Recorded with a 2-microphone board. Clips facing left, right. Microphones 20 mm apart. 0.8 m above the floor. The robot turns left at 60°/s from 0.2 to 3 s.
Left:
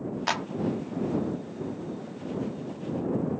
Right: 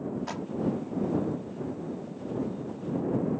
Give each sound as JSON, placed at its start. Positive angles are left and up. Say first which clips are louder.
{"t": 0.3, "sound": "a clap", "louder": "left 7 dB", "side_deg": 75}